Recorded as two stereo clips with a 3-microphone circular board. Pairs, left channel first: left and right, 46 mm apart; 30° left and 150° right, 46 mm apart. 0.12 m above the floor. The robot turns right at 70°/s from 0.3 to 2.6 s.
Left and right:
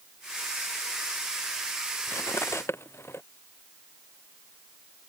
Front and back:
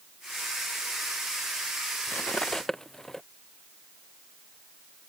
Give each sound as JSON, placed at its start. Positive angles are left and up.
{"t": 2.1, "sound": "cutlery clinking", "azimuth_deg": 75}